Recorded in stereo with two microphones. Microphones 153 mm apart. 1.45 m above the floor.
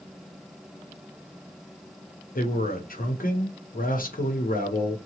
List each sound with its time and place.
2.4 s a man speaking: 70° left (ahead or behind), 0.9 m